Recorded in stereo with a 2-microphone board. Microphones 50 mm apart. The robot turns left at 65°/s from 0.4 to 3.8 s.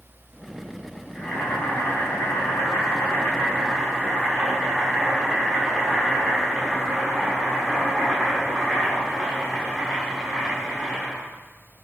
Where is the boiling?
175° left, 6 m; by 11.2 s straight ahead, 6 m.